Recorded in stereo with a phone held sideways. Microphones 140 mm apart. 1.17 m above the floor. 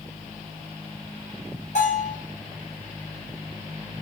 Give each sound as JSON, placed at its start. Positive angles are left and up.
{"t": 1.8, "sound": "a bell", "side_deg": 55, "distance_m": 2.5}